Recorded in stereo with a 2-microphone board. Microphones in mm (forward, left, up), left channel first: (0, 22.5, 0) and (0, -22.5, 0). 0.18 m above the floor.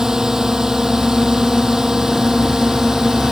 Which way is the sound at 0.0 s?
10° right (ahead or behind).